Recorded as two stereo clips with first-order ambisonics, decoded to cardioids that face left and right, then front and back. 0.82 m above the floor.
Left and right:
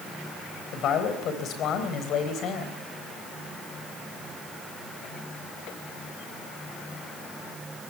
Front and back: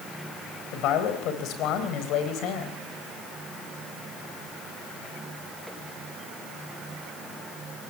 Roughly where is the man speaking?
Ahead left.